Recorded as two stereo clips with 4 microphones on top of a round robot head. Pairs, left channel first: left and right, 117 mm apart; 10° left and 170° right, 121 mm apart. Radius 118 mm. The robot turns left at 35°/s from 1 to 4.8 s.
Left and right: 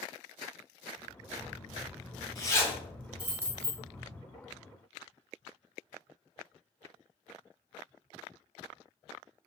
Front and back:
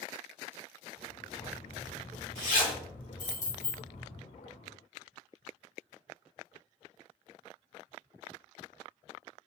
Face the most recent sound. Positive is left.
turn(degrees=-65)